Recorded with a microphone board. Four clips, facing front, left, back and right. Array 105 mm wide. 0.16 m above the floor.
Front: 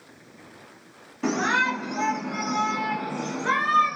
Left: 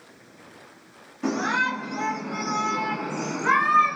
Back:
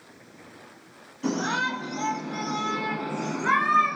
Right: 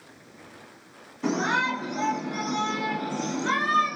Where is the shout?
15° left, 1.5 m; by 4.0 s 120° left, 1.4 m.